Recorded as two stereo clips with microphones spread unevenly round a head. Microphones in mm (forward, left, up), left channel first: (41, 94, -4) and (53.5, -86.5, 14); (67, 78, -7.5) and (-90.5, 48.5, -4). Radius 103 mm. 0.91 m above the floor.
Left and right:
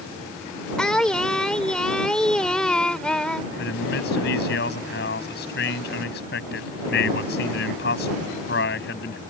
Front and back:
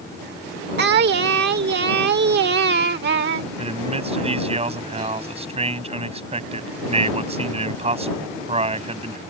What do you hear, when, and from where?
0.8 s singing: 175° right
3.6 s a man speaking: 140° left